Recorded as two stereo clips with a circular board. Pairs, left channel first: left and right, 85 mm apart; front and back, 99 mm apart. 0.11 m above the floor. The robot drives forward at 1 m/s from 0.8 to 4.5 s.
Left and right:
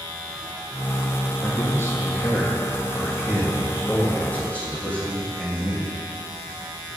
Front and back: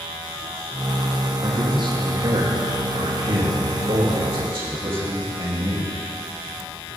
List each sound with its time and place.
1.4 s a man speaking: 140° left, 2.5 m; by 6.0 s 165° left, 5 m